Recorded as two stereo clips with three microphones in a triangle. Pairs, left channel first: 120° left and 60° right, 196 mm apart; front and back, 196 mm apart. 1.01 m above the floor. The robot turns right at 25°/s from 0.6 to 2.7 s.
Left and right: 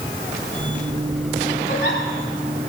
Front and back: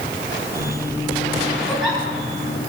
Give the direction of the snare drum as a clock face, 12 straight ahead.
I don't hear a snare drum.